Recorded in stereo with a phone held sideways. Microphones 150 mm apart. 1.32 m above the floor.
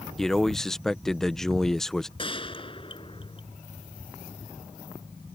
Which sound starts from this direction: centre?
A man speaking, at 0.2 s.